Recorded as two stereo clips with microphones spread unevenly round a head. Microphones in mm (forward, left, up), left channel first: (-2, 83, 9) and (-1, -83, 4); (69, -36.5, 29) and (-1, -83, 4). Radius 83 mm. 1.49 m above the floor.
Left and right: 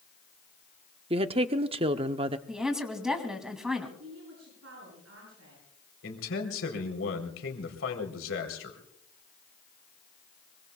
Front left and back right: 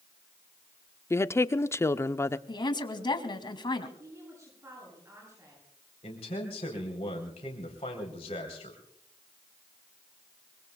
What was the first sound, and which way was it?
A woman speaking, 35° right.